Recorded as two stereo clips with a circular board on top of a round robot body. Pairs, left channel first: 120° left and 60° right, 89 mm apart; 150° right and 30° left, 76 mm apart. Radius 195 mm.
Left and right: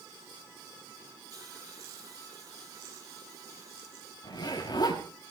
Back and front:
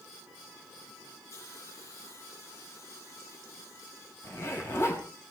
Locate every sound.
1.3 s a hiss: 110° right, 9.5 m
4.2 s a zipper: 155° left, 5 m